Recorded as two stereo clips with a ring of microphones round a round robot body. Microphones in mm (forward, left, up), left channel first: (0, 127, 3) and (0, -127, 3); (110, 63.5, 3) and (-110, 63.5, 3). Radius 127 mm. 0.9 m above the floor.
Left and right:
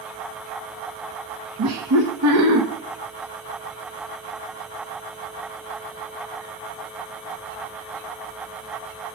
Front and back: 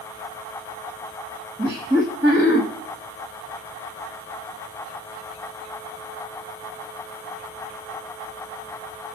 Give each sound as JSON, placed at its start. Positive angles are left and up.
{"t": 1.6, "sound": "laughter", "azimuth_deg": -110, "distance_m": 1.1}